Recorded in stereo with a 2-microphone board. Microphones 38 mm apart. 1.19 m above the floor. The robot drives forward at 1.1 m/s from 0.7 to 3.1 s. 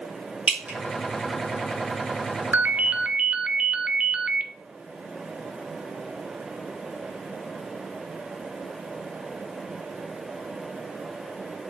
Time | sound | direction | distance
0.5 | dripping | 25° right (ahead or behind) | 3 m
2.5 | a ringtone | 50° right (ahead or behind) | 0.5 m